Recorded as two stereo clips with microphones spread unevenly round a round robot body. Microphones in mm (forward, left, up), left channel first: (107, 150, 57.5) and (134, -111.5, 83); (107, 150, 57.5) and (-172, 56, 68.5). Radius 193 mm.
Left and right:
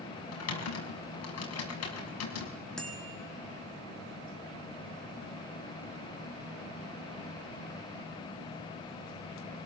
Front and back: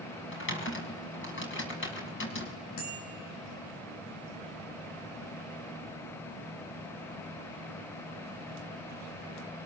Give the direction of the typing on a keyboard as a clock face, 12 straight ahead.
10 o'clock.